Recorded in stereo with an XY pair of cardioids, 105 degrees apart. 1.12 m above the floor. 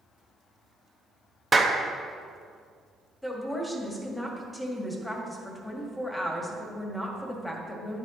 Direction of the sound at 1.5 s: 25° right.